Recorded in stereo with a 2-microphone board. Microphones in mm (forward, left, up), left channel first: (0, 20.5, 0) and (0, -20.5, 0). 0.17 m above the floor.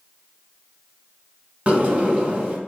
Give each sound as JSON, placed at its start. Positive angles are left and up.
{"t": 1.7, "sound": "a sliding door", "side_deg": -30, "distance_m": 0.8}